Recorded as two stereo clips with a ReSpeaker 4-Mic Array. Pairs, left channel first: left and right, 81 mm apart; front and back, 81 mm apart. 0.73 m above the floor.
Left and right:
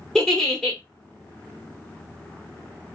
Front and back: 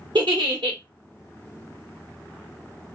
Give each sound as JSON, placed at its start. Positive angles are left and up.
{"t": 0.1, "sound": "a giggle", "azimuth_deg": 175, "distance_m": 1.1}